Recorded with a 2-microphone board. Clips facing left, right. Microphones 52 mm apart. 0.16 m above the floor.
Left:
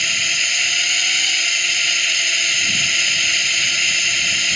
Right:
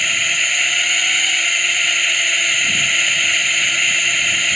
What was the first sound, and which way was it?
A drone, 15° right (ahead or behind).